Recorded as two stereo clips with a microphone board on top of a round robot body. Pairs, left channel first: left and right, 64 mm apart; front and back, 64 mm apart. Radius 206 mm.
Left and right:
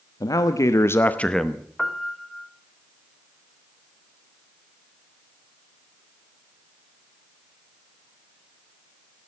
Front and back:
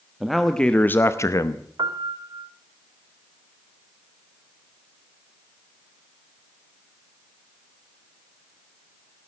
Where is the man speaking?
95° left, 1.5 m; by 1.7 s 5° right, 1.4 m.